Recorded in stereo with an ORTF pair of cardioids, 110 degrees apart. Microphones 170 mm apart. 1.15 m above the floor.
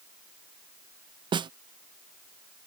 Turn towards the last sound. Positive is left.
turn(degrees=-30)